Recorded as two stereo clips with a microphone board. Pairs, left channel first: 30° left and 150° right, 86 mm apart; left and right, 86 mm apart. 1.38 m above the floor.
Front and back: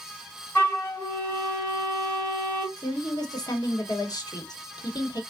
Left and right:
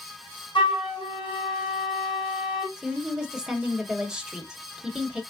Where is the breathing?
I don't hear breathing.